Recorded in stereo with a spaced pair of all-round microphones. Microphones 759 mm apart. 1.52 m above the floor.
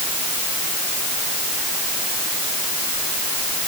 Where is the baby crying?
No baby crying in this recording.